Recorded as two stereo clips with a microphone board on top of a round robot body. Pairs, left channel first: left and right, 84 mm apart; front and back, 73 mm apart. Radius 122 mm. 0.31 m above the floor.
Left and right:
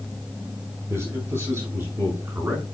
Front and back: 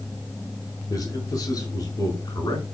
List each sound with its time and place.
0.9 s a man speaking: 30° right, 6 m; by 2.6 s 20° right, 6 m